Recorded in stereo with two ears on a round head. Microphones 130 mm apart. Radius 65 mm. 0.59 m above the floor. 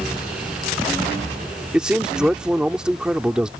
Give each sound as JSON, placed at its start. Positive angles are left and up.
{"t": 1.7, "sound": "a man speaking", "side_deg": -5}